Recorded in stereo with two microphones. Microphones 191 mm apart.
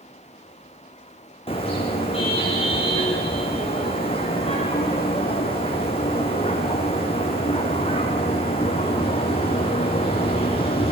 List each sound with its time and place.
1.5 s a car horn: 30° left (ahead or behind), 5 m